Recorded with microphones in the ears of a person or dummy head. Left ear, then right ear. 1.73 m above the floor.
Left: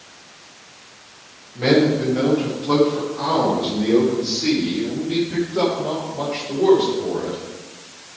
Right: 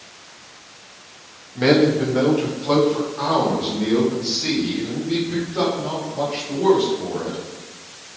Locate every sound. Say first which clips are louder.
1.6 s a man speaking: right 1 dB; 45° right (ahead or behind), 3 m; by 7.4 s 15° right (ahead or behind), 8 m